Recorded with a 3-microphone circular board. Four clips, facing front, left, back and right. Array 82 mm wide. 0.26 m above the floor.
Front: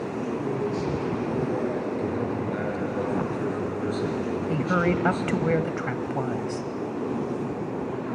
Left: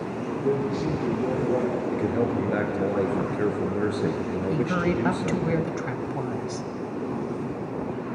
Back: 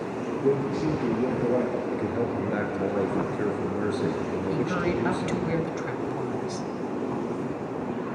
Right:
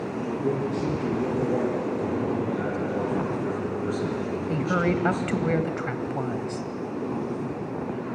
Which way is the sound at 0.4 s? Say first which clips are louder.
Left 2 dB, back 6 dB; 175° right.